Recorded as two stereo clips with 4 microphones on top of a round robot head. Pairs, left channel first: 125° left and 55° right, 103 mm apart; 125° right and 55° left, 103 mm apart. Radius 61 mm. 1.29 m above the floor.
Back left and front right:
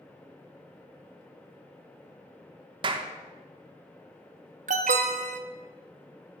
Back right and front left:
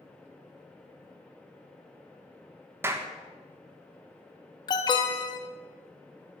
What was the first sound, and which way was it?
A clap, 10° right.